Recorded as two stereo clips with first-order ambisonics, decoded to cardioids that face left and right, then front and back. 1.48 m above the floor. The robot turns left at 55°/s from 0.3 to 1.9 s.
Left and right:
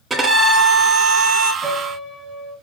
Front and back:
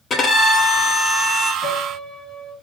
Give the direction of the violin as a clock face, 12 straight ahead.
1 o'clock.